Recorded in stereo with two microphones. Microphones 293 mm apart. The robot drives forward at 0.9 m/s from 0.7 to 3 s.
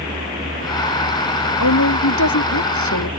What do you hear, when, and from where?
1.6 s a woman speaking: 80° left; by 3.1 s 75° left (ahead or behind)